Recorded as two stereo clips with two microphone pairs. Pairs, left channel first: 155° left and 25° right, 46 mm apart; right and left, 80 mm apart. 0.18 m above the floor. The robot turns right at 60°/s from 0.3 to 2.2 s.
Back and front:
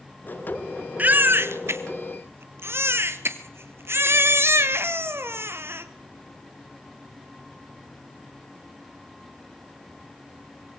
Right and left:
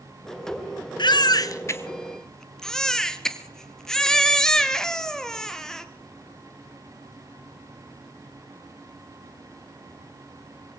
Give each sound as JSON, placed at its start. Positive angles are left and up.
{"t": 1.0, "sound": "a baby crying", "azimuth_deg": -80, "distance_m": 1.8}